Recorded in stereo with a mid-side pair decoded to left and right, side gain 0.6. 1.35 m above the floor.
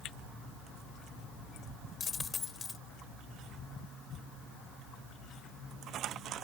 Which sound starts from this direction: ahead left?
A dropped coin, at 2.0 s.